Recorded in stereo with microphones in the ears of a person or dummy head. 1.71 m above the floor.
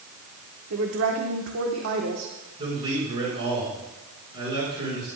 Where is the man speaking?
25° right (ahead or behind), 6.5 m.